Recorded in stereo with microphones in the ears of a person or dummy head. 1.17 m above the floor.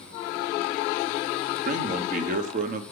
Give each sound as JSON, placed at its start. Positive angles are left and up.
{"t": 1.6, "sound": "a man speaking", "side_deg": -50, "distance_m": 1.3}